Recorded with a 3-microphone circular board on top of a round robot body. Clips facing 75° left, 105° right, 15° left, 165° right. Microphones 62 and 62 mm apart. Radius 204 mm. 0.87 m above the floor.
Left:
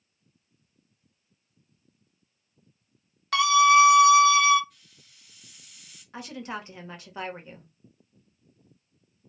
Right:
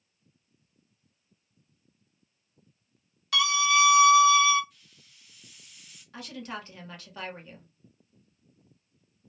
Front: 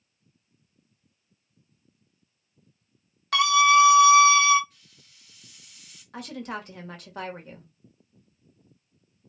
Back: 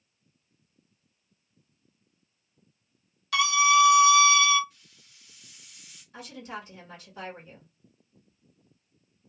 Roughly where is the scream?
Ahead left.